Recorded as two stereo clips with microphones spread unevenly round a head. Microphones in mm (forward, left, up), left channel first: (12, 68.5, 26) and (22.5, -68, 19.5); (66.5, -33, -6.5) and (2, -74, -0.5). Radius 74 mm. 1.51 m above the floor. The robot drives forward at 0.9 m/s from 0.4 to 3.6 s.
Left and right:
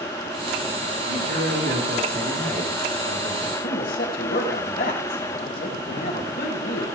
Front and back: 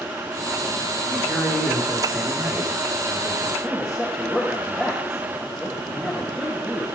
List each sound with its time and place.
1.1 s a man speaking: 60° right, 4.5 m; by 3.5 s 90° right, 4 m
3.6 s a man speaking: 120° left, 3 m